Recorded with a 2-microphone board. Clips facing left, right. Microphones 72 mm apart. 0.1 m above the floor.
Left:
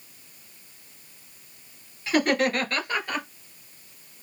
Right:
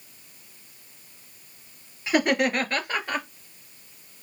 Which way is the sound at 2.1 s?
20° right (ahead or behind).